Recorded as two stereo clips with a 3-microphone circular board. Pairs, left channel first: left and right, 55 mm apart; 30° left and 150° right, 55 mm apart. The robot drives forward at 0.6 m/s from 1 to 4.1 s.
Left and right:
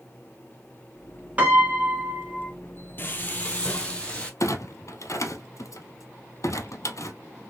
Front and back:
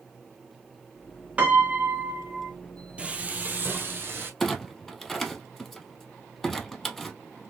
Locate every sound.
1.4 s a piano: 110° right, 1.5 m; by 2.5 s 145° right, 1.8 m
3.0 s frying: 140° left, 0.8 m; by 4.3 s 160° left, 1.4 m
4.4 s a clunk: 115° left, 0.6 m